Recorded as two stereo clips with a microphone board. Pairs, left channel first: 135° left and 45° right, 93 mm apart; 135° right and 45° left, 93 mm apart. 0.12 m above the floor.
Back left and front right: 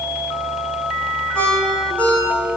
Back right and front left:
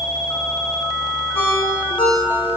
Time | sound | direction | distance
1.4 | a ringtone | 150° right | 4.5 m